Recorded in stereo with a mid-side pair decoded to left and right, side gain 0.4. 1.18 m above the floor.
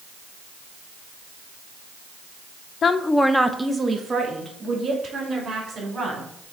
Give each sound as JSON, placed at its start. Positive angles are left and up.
{"t": 2.8, "sound": "a woman speaking", "azimuth_deg": 60, "distance_m": 0.5}